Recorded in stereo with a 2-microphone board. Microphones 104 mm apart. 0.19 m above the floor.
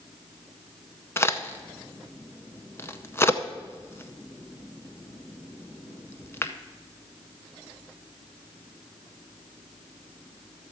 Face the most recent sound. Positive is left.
turn(degrees=25)  # may be behind; listen again after turning